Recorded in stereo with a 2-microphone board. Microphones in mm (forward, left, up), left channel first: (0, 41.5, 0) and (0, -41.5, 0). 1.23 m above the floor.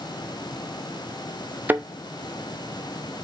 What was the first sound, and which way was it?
A thud, 25° right (ahead or behind).